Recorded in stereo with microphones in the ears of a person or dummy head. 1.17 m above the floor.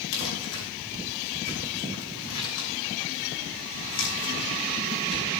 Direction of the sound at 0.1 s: 75° left (ahead or behind).